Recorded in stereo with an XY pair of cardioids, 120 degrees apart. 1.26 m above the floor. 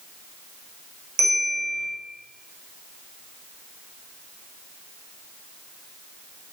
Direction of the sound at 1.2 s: 65° right.